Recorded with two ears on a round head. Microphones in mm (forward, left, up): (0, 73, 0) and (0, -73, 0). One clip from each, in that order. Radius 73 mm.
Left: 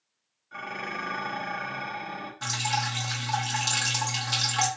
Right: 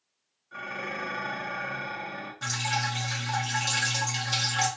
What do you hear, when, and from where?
0.5 s dishes clattering: 20° left (ahead or behind), 0.9 m
2.4 s dripping: 20° left (ahead or behind), 1.0 m